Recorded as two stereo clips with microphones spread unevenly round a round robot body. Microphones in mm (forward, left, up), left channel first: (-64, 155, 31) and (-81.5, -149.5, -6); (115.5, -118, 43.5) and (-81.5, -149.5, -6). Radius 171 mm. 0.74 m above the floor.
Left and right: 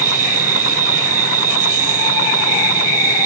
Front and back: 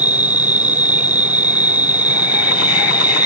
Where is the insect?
115° right.